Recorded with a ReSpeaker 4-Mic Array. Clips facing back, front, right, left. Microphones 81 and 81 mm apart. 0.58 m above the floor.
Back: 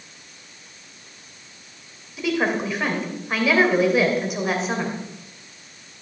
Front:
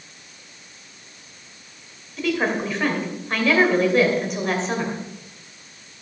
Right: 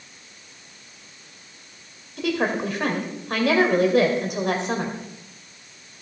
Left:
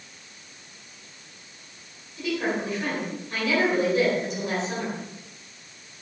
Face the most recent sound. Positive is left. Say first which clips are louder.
# even, right 3 dB
turn(degrees=-100)